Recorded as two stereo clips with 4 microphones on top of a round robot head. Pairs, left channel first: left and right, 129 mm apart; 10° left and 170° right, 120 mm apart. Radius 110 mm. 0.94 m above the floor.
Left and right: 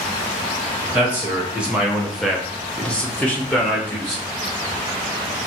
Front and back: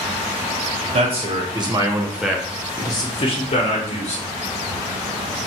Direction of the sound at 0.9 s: 165° right.